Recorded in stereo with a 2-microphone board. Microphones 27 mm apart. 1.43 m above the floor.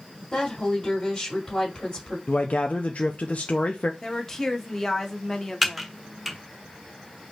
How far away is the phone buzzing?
I don't hear a phone buzzing.